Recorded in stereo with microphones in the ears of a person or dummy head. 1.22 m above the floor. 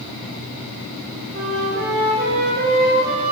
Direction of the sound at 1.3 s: 55° right (ahead or behind).